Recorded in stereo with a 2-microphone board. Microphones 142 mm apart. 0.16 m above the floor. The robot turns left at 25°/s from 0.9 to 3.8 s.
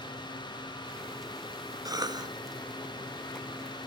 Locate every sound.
1.9 s a cough: 25° right (ahead or behind), 1.1 m; by 2.3 s 30° right (ahead or behind), 1.1 m